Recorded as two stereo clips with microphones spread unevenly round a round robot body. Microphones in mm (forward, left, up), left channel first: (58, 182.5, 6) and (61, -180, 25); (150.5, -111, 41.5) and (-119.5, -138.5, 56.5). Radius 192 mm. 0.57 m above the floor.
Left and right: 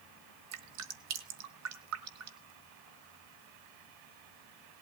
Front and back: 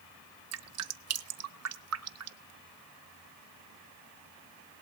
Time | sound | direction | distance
0.5 | dripping | 145° right | 1.2 m